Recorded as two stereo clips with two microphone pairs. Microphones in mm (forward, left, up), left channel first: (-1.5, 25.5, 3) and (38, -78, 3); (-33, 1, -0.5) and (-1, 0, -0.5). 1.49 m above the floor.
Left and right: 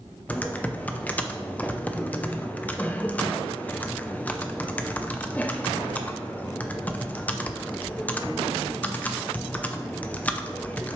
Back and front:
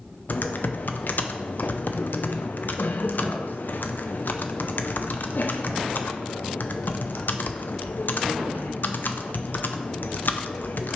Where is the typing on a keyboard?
170° right, 0.7 m.